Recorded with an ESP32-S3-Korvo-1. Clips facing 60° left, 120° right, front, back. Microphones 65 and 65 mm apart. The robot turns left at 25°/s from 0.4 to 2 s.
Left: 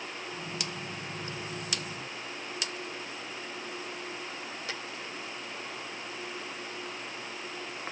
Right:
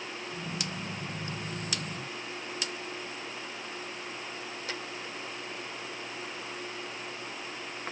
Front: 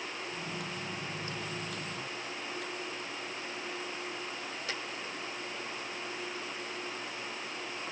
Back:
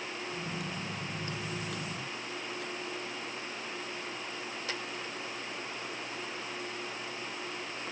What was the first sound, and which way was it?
Only background noise.